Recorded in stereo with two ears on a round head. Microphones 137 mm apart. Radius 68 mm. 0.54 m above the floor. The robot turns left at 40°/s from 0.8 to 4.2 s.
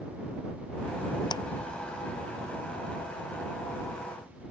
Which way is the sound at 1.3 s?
30° left (ahead or behind).